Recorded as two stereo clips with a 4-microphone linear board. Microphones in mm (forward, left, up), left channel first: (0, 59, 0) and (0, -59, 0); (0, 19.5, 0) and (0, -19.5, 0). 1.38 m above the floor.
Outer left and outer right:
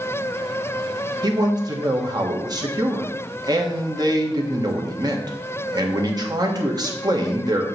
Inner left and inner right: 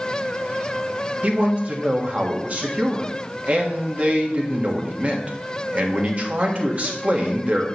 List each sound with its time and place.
1.2 s a man speaking: 35° right (ahead or behind), 1.4 m